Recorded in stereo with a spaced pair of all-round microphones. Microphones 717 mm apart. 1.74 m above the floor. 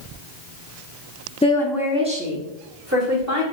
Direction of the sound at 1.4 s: 10° left (ahead or behind).